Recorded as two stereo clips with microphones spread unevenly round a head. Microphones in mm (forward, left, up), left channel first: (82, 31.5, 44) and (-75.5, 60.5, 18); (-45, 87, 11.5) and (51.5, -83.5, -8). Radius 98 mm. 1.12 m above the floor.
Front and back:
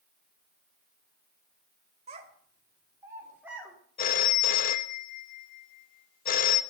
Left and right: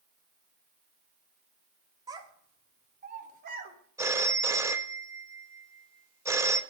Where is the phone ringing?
20° left, 0.7 m.